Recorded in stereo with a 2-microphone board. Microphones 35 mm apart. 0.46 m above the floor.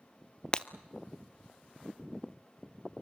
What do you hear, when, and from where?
0.5 s breaking glass: 30° left (ahead or behind), 0.5 m